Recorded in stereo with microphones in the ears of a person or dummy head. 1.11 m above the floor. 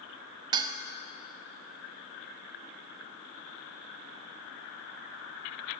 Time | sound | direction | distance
0.5 | dishes clattering | 25° right (ahead or behind) | 0.6 m